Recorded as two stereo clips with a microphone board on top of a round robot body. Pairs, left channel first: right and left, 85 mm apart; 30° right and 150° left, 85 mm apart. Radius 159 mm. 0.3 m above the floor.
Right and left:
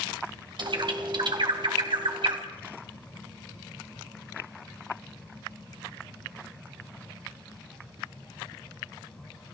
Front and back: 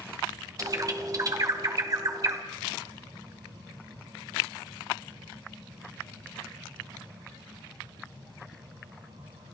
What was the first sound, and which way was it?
A bird, 105° left.